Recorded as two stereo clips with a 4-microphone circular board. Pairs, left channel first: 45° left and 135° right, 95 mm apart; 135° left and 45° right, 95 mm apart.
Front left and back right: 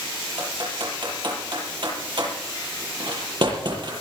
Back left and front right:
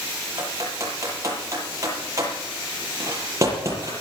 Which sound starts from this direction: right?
Typing on a keyboard, at 0.4 s.